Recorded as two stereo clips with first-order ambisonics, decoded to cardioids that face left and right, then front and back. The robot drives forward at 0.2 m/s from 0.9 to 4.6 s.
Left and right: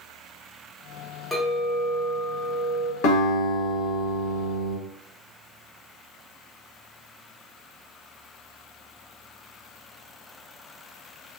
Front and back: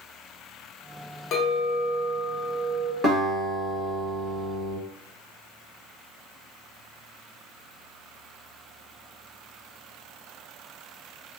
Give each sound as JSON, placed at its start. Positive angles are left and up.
{"t": 1.3, "sound": "a clink", "azimuth_deg": 5, "distance_m": 0.6}
{"t": 3.0, "sound": "a guitar", "azimuth_deg": 110, "distance_m": 1.1}